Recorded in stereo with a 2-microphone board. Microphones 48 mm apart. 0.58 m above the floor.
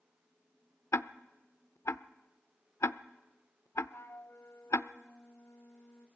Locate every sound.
0.9 s ticking: 75° left (ahead or behind), 0.6 m
3.9 s a flute: 75° left (ahead or behind), 1.0 m